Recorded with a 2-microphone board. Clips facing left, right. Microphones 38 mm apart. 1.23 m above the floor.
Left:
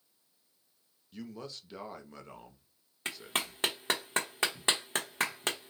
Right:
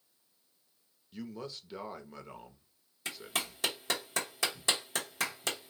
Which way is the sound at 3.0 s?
40° left (ahead or behind).